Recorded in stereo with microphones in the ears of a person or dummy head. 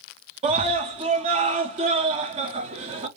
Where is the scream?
40° right (ahead or behind), 0.6 m.